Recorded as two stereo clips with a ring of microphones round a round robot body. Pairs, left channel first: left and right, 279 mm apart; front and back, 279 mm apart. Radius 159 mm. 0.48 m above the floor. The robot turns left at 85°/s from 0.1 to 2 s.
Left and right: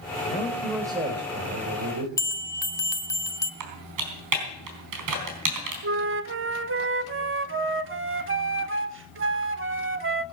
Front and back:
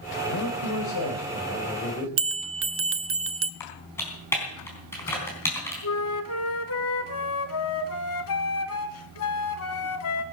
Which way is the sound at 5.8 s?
45° right.